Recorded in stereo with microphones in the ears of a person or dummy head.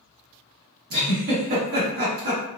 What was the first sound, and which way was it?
A giggle, 50° right (ahead or behind).